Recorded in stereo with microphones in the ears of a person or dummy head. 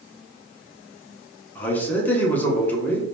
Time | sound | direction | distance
1.6 | a man speaking | 10° left (ahead or behind) | 0.8 m